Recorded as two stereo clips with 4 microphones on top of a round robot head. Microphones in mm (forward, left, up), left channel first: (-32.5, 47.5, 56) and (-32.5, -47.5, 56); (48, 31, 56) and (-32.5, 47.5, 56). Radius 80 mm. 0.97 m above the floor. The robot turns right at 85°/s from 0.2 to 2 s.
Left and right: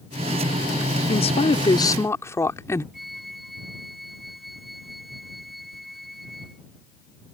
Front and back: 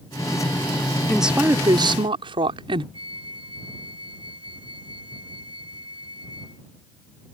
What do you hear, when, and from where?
1.1 s a woman speaking: 75° left; by 2.8 s 150° left
2.9 s a flute: straight behind